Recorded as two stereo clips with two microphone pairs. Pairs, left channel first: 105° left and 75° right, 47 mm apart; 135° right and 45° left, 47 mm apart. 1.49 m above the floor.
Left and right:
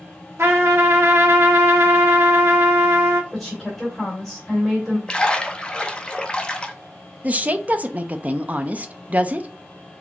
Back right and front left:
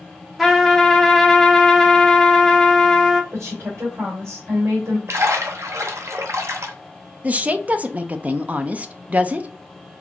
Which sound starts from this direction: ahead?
A woman speaking, at 7.2 s.